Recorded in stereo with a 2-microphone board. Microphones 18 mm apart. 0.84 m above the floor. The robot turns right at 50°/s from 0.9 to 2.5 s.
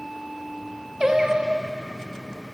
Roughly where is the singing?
Behind right.